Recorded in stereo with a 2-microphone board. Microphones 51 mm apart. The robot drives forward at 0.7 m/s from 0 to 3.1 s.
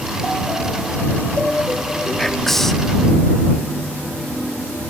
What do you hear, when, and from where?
2.2 s whispering: 5° left (ahead or behind), 1.4 m